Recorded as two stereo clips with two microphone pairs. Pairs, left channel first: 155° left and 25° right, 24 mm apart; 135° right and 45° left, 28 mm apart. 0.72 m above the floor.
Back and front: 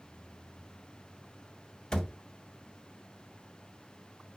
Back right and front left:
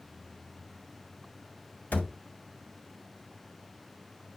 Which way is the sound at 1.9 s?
140° right.